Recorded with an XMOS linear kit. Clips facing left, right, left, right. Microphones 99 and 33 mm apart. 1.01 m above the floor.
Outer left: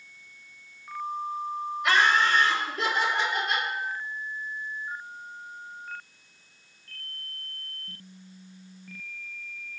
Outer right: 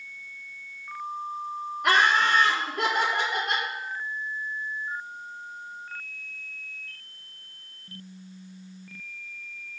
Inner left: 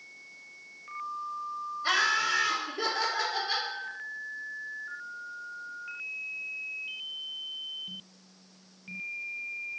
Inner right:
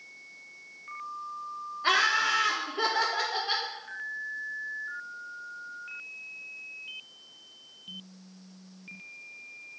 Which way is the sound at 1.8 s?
50° right (ahead or behind).